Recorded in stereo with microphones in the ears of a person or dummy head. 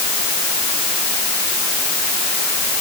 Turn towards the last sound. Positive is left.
No sound to turn to.